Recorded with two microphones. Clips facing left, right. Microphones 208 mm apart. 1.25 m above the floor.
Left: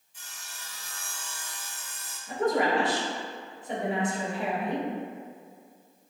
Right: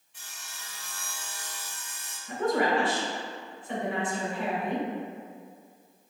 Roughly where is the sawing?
Right.